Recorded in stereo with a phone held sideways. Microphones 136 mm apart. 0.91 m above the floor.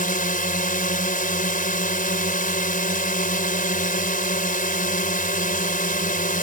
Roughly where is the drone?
Left.